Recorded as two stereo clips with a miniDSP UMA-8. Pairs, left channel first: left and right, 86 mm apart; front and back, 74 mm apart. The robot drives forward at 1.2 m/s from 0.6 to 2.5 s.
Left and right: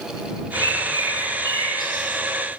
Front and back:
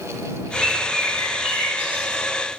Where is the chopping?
No chopping in this recording.